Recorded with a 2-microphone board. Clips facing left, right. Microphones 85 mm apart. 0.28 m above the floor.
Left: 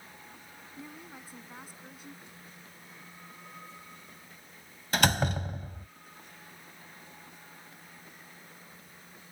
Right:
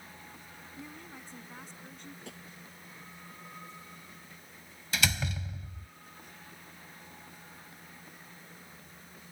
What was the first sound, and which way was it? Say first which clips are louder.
A woman speaking: left 1 dB; 5° left (ahead or behind).